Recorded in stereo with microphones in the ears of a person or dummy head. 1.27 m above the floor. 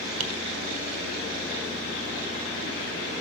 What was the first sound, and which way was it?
Tapping, 50° right (ahead or behind).